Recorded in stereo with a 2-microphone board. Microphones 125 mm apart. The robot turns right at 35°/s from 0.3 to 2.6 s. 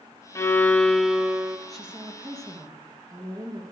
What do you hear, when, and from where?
0.3 s a violin: 155° left, 0.7 m; by 1.6 s 160° right, 0.7 m
1.7 s a woman speaking: straight behind, 2.5 m; by 3.6 s 150° right, 2.5 m